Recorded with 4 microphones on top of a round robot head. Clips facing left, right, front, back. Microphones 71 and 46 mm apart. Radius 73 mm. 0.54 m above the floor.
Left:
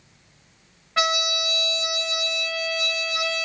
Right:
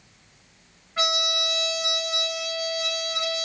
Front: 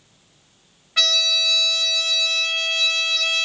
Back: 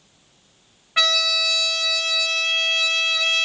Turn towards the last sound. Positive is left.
turn(degrees=110)